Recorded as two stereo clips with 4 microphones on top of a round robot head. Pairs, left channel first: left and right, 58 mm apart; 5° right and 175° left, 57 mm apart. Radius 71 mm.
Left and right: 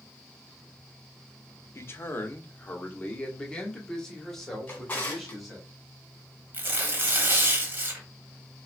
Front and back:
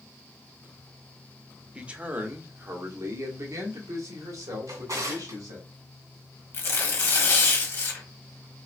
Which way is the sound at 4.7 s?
150° left.